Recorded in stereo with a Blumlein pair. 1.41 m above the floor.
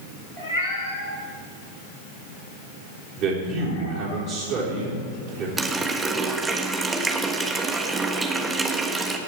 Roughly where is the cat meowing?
Ahead left.